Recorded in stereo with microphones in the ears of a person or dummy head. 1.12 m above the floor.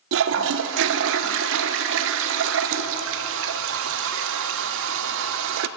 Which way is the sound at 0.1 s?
60° right (ahead or behind).